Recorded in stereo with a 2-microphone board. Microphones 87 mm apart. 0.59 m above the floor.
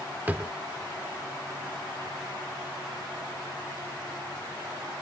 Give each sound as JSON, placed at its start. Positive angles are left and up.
{"t": 0.3, "sound": "a drawer", "side_deg": -20}